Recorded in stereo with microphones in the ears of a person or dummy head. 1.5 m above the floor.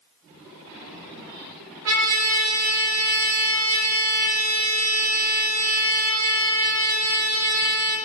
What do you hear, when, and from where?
1.9 s a trumpet: 80° right, 0.8 m